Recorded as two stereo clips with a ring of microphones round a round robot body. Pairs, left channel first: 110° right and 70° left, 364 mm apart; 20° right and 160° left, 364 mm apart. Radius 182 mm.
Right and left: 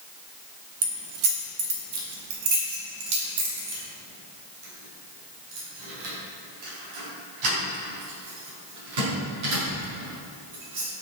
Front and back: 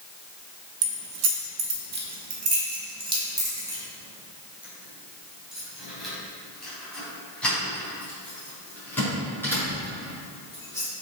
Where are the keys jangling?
120° left, 1.1 m; by 10.9 s 60° left, 7 m.